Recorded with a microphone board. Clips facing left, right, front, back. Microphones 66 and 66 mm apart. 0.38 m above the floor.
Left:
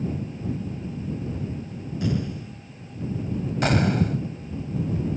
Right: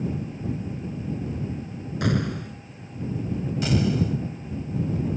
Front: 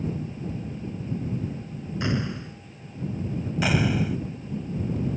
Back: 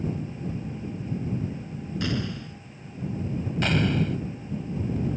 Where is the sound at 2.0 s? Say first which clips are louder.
Right 2 dB, front 2 dB; 65° right.